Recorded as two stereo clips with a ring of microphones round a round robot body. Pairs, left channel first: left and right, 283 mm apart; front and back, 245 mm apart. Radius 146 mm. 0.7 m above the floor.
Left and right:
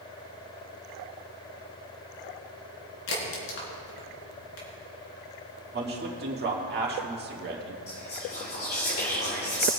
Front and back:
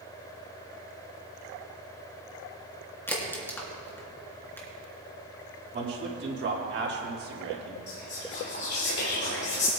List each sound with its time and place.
3.1 s a crack: 80° left, 3 m
5.7 s a man speaking: 140° right, 1.6 m
7.9 s whispering: 40° left, 2.0 m